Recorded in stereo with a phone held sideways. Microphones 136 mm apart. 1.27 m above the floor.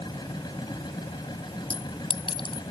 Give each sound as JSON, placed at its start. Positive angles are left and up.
{"t": 0.0, "sound": "a machine running", "side_deg": 30}
{"t": 1.7, "sound": "a clink", "side_deg": 35}